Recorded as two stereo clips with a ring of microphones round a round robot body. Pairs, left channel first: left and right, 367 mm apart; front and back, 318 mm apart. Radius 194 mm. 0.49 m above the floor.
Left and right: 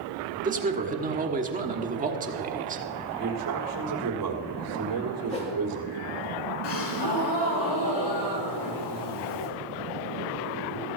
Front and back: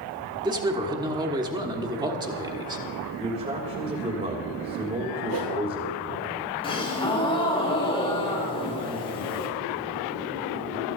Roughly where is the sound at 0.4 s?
Behind right.